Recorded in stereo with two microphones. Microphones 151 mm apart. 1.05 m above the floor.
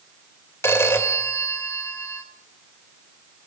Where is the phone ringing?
15° left (ahead or behind), 2.5 m.